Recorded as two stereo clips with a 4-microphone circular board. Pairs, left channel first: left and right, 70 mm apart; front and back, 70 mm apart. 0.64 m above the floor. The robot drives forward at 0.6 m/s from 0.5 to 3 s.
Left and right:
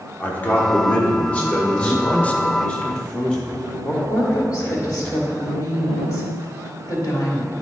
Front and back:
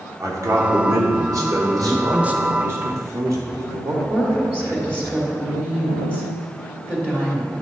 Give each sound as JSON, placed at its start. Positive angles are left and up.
{"t": 0.2, "sound": "a man speaking", "azimuth_deg": 150, "distance_m": 1.5}
{"t": 1.8, "sound": "a man speaking", "azimuth_deg": 70, "distance_m": 0.6}
{"t": 4.1, "sound": "a woman speaking", "azimuth_deg": 125, "distance_m": 2.5}